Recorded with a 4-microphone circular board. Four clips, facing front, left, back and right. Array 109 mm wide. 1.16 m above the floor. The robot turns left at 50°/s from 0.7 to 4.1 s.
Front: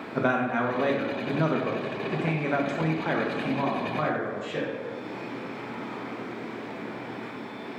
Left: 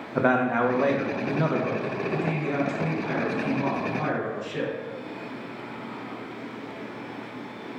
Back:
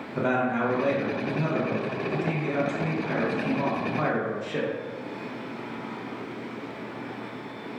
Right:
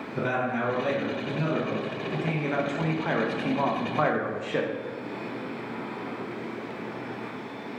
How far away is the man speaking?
About 0.5 m.